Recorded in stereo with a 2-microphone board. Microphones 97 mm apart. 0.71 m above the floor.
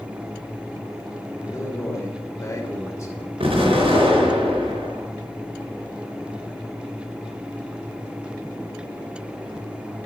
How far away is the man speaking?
About 2.5 m.